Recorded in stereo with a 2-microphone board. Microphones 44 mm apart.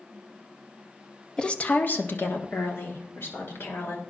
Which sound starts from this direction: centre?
A woman speaking, at 1.4 s.